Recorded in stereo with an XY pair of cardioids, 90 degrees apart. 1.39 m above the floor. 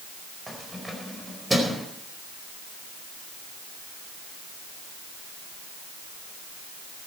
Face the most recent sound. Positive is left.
turn(degrees=-15)